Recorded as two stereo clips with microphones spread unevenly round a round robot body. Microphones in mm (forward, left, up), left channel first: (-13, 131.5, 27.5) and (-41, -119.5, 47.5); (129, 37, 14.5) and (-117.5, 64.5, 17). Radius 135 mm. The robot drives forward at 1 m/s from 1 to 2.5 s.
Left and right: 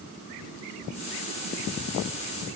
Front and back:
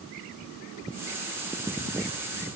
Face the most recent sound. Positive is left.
No sound to turn to.